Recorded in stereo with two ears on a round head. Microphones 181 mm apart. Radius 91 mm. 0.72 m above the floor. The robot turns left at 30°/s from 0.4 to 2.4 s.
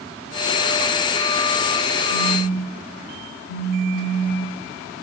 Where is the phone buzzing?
75° left (ahead or behind), 4 m; by 4.6 s 80° left, 4 m.